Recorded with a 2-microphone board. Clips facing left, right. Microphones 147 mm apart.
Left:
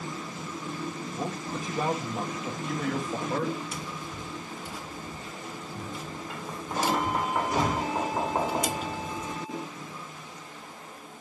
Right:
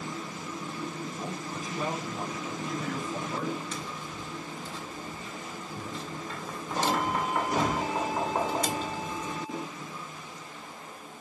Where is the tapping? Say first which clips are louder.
Left 1 dB; 10° left (ahead or behind), 2 m.